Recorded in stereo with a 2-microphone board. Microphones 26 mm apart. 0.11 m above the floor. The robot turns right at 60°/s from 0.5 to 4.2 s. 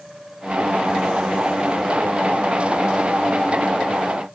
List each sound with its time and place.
Only background noise.